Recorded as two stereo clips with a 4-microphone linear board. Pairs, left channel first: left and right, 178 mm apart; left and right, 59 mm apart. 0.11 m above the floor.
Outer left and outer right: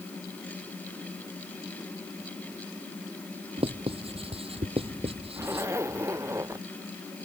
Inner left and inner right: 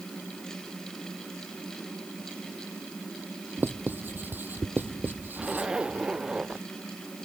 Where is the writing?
30° right (ahead or behind).